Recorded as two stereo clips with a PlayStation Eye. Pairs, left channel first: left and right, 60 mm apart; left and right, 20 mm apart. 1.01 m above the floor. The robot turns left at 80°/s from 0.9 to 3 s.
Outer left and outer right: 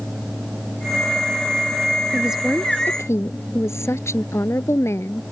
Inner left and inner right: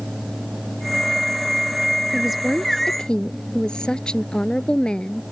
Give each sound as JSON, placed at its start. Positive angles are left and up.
{"t": 2.1, "sound": "a woman speaking", "azimuth_deg": -160}